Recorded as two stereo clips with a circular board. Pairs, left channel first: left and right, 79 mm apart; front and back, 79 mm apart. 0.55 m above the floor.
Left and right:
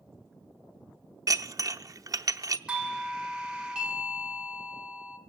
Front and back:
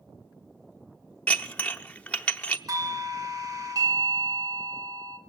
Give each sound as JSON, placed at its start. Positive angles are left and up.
{"t": 1.3, "sound": "dishes clattering", "azimuth_deg": -65, "distance_m": 0.7}
{"t": 2.7, "sound": "a doorbell", "azimuth_deg": -165, "distance_m": 1.6}